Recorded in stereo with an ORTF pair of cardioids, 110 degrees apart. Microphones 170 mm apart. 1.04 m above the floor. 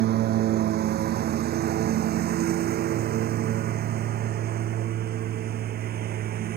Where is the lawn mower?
70° right; by 6.6 s 65° right.